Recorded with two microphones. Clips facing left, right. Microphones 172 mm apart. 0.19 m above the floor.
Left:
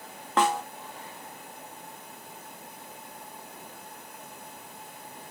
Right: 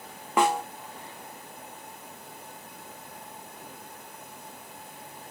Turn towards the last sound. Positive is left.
turn(degrees=-10)  # may be behind; listen again after turning